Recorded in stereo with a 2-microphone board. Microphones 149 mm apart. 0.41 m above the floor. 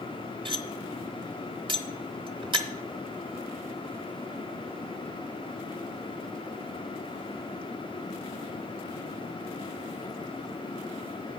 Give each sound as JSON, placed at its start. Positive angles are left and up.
{"t": 0.5, "sound": "cutlery clinking", "side_deg": -35, "distance_m": 0.9}